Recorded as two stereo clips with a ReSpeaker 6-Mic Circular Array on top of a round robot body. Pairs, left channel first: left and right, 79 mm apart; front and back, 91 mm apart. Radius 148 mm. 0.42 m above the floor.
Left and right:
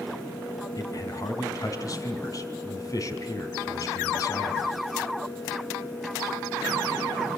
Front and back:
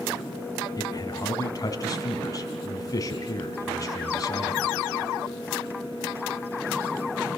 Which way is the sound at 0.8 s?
50° left.